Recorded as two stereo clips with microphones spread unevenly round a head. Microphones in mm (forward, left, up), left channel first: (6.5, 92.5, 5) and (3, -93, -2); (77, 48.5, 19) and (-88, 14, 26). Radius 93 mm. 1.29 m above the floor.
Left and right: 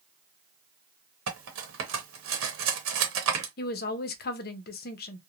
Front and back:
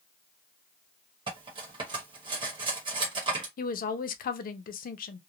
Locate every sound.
1.3 s cutlery clinking: 105° right, 0.9 m
3.6 s a woman speaking: 50° left, 0.6 m